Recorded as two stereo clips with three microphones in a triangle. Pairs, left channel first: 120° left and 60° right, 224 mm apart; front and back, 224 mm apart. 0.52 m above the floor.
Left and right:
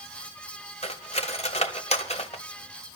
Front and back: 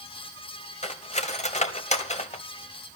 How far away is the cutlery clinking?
About 1.3 m.